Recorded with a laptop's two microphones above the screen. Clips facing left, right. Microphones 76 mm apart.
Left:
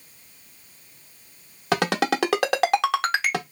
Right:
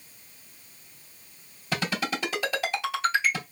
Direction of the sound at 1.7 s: 65° left (ahead or behind).